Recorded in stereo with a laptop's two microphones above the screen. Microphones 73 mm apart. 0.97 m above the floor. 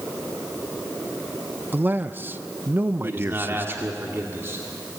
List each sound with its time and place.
1.7 s a man speaking: 25° right (ahead or behind), 0.6 m
3.0 s a man speaking: 35° right (ahead or behind), 2 m